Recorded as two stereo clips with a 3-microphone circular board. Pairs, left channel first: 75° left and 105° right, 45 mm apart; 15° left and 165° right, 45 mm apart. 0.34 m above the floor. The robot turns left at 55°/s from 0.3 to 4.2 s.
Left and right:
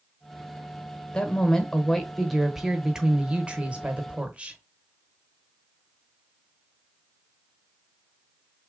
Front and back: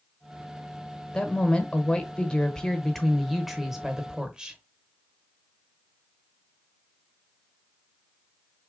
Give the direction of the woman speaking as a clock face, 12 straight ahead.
10 o'clock.